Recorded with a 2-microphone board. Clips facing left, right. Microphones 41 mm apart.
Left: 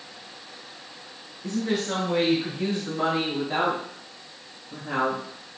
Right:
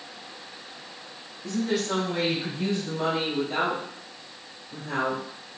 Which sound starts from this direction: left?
A woman speaking, at 1.4 s.